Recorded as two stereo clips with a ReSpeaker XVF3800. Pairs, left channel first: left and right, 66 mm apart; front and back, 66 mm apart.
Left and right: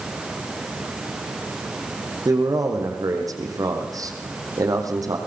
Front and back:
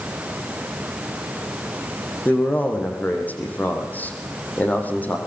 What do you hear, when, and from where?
2.2 s a man speaking: 65° right, 6 m